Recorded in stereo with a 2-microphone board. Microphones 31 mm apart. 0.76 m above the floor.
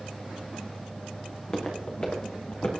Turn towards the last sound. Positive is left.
turn(degrees=45)  # may be behind; listen again after turning